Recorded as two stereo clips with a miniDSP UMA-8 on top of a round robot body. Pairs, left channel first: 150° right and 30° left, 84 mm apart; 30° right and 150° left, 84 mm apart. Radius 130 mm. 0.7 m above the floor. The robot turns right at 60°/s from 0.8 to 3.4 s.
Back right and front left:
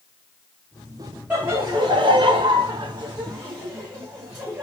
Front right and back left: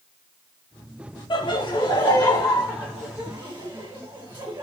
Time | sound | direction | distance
1.3 | laughter | 45° right | 1.9 m